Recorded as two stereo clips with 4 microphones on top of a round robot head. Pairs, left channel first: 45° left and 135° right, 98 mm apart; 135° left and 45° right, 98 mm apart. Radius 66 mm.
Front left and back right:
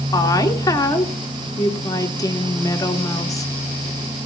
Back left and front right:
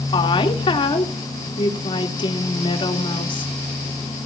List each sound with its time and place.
0.1 s a woman speaking: 100° left, 2.5 m